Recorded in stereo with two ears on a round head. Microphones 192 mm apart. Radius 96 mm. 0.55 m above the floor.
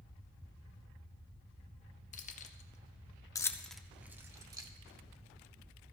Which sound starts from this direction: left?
Keys jangling, at 2.1 s.